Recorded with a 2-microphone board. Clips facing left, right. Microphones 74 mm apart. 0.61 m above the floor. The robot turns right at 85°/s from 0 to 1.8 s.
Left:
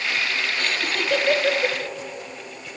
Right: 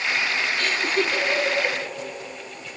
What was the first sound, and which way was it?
Laughter, 40° left (ahead or behind).